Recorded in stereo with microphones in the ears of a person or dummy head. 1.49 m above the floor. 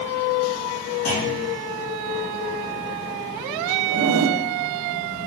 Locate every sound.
1.1 s a clunk: 65° left (ahead or behind), 4.5 m
3.9 s a zipper: 85° right, 0.9 m